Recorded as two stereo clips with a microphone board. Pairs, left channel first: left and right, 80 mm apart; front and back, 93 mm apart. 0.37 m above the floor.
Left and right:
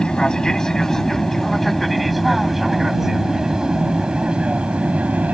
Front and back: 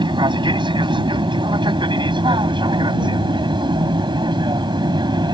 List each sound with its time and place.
0.0 s an aircraft: 170° left; by 5.3 s 160° right